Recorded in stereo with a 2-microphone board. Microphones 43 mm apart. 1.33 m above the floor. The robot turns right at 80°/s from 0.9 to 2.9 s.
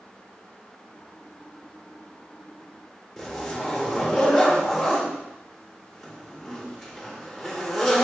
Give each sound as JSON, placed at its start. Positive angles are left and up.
{"t": 3.2, "sound": "a zipper", "side_deg": 5, "distance_m": 2.5}